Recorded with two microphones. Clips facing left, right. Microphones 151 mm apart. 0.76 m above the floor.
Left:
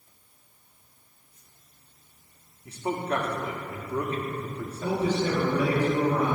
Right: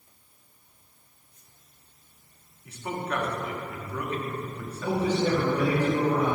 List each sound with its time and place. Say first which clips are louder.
2.6 s a man speaking: left 3 dB; 30° left (ahead or behind), 1.4 m
4.8 s a man speaking: right 1 dB; 10° right (ahead or behind), 3 m